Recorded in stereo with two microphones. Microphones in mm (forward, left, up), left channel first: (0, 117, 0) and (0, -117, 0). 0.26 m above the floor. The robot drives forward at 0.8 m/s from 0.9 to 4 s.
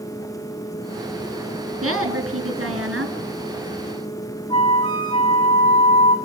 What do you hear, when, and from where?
1.8 s a woman speaking: 70° right (ahead or behind), 3 m; by 3.1 s 65° right (ahead or behind), 3 m
4.5 s a flute: 20° left (ahead or behind), 3 m